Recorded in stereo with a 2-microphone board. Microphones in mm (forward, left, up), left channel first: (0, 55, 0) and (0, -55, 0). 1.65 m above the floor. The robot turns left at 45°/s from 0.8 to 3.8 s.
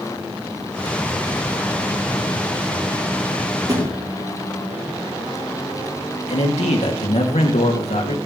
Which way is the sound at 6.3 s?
85° left.